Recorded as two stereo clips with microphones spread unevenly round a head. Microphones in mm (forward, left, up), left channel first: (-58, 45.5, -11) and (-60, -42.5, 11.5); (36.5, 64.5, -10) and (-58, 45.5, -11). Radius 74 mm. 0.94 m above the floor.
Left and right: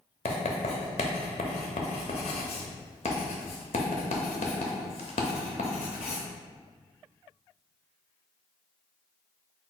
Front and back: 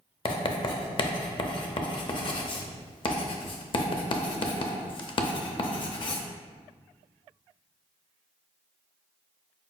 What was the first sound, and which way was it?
Writing, 45° left.